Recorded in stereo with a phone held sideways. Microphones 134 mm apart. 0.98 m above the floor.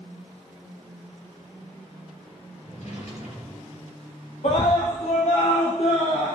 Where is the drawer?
65° left (ahead or behind), 4 m.